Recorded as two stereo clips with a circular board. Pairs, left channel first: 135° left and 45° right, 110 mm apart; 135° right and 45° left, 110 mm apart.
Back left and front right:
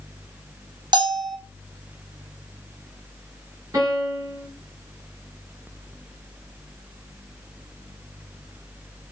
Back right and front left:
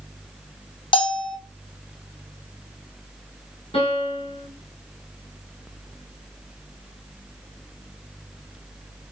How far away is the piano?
About 4 m.